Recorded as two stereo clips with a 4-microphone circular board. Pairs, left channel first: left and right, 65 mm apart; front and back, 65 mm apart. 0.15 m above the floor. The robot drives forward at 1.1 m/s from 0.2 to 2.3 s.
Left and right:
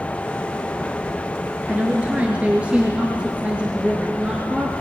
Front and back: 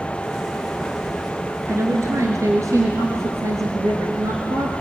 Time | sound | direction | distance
1.7 | a woman speaking | 150° right | 2.5 m